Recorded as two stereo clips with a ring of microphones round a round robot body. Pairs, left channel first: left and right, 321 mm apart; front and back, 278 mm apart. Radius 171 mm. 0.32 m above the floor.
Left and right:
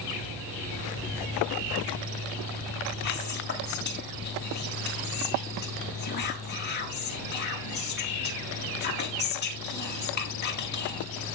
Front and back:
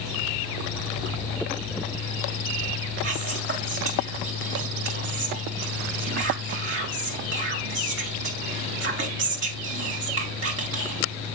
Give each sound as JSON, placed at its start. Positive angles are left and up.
{"t": 3.0, "sound": "whispering", "azimuth_deg": 145, "distance_m": 2.5}